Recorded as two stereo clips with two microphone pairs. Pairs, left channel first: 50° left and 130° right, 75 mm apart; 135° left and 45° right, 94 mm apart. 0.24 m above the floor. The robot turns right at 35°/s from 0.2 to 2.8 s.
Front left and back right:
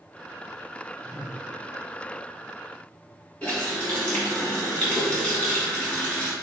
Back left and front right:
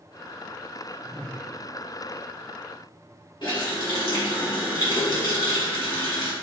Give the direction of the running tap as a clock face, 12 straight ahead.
8 o'clock.